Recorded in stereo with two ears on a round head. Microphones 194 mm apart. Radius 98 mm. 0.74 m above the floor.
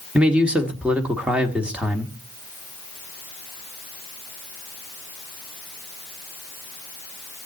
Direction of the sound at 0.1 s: 5° right (ahead or behind).